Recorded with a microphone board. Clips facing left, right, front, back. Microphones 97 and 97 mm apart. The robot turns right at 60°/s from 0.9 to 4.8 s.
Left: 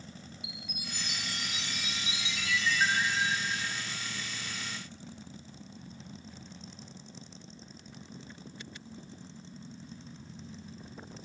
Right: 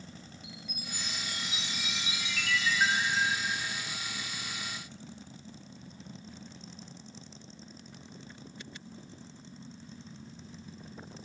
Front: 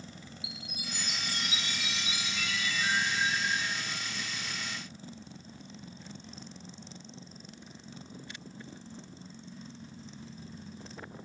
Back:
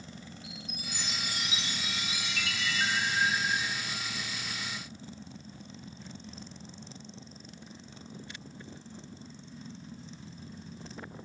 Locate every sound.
0.4 s a chime: 80° left, 6 m; by 3.7 s 115° right, 6 m